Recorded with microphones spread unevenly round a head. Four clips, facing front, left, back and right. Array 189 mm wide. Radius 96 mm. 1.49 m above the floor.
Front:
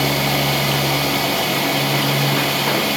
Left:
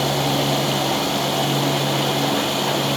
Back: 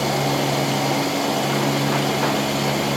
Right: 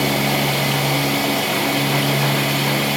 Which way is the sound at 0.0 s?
Straight ahead.